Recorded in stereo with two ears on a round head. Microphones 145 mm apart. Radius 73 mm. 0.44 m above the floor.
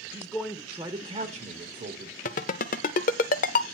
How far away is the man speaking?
About 1.1 m.